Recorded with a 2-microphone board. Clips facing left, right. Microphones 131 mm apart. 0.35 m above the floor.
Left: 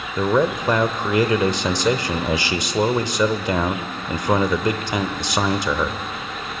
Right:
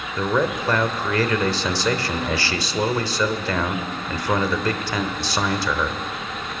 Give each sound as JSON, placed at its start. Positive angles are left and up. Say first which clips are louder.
{"t": 0.2, "sound": "a man speaking", "louder": "left 3 dB", "side_deg": 20, "distance_m": 0.8}